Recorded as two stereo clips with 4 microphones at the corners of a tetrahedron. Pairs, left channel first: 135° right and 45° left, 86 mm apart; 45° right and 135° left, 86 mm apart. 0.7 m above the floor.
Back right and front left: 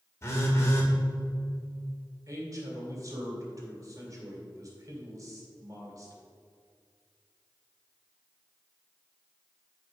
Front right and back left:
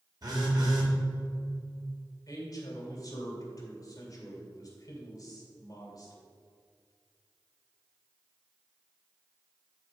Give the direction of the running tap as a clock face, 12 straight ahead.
No running tap in this recording.